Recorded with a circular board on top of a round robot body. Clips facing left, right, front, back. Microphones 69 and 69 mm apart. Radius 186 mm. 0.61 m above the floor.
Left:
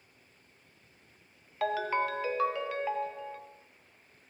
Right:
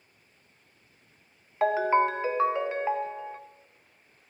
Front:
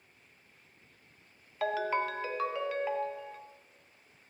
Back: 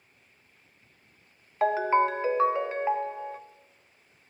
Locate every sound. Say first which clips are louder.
1.6 s a ringtone: right 7 dB, back 8 dB; 140° right, 0.5 m